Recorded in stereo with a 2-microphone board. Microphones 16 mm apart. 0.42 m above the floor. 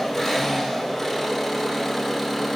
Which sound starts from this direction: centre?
An engine running, at 0.0 s.